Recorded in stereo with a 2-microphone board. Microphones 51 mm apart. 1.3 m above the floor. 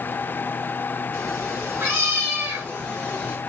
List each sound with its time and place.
1.1 s a cat meowing: 50° right (ahead or behind), 7.5 m; by 3.4 s 30° right (ahead or behind), 5.5 m